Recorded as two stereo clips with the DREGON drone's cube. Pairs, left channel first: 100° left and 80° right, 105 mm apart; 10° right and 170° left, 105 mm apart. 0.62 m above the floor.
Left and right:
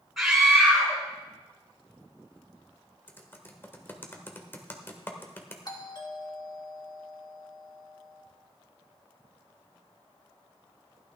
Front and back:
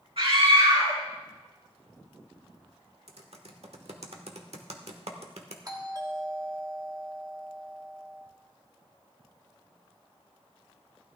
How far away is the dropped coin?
No dropped coin in this recording.